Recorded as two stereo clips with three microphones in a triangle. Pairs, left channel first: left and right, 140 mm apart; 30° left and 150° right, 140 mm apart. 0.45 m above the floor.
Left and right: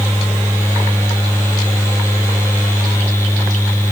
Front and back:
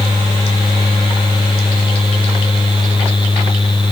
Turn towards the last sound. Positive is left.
No sound to turn to.